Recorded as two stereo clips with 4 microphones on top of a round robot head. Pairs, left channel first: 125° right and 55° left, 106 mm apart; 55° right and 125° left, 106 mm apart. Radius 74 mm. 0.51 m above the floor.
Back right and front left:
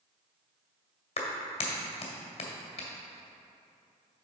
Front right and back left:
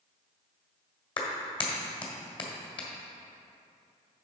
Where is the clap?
100° right, 1.8 m.